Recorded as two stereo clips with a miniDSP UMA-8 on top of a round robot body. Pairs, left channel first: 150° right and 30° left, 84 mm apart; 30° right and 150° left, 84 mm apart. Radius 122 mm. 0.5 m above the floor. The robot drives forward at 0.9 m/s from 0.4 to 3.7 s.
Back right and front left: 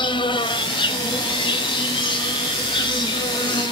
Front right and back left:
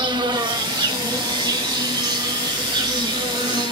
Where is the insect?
175° right, 1.5 m; by 3.7 s straight behind, 4.5 m.